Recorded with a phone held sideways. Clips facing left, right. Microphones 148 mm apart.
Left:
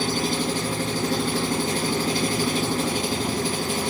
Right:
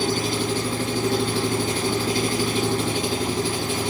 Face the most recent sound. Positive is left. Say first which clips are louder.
# right 1 dB
turn(degrees=40)  # may be behind; listen again after turning